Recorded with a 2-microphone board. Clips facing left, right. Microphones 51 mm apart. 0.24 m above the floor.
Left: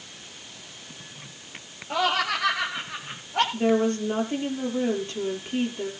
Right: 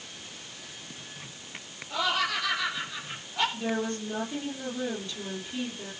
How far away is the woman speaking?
About 7 m.